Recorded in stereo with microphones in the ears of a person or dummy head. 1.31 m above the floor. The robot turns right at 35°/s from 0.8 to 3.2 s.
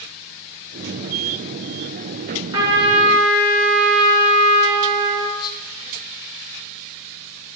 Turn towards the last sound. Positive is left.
turn(degrees=20)  # may be behind; listen again after turning